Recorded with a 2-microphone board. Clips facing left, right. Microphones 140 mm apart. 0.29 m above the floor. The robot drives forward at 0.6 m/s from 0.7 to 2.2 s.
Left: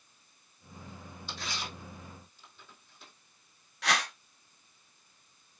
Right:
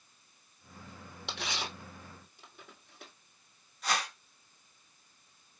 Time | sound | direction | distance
1.3 | tearing paper | 80° right | 2 m
3.8 | a whoosh | 80° left | 1.8 m